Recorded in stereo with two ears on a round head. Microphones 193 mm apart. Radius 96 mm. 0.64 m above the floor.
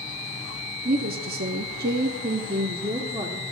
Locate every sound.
0.8 s a woman speaking: 40° right (ahead or behind), 1.0 m; by 3.4 s 15° right (ahead or behind), 1.3 m